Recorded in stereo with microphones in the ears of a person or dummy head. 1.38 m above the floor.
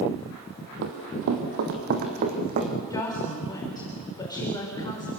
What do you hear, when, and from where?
0.8 s running footsteps: 60° right (ahead or behind), 2.5 m; by 2.7 s 40° right (ahead or behind), 4 m
2.9 s a woman speaking: 20° left (ahead or behind), 4.5 m